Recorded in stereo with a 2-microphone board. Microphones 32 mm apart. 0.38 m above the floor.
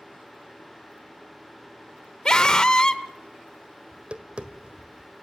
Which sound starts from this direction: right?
Tapping, at 3.9 s.